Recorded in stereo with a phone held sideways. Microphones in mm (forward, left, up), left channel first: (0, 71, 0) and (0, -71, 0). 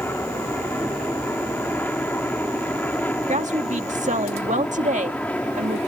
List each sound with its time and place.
0.0 s an aircraft: 15° left (ahead or behind); by 5.9 s 10° left (ahead or behind)
3.3 s a woman speaking: 70° right (ahead or behind)